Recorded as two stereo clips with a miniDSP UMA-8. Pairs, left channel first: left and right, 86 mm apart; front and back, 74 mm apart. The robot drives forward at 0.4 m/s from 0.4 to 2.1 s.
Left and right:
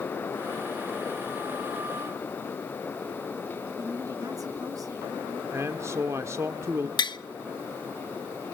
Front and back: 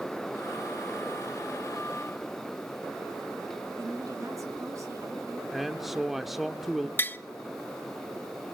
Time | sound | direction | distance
3.8 | a woman speaking | 135° right | 4.5 m
5.5 | a man speaking | 95° right | 0.8 m
7.0 | tapping | 60° left | 0.5 m